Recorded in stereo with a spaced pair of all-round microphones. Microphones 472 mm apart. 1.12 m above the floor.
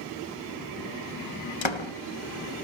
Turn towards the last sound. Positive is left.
turn(degrees=70)  # may be behind; listen again after turning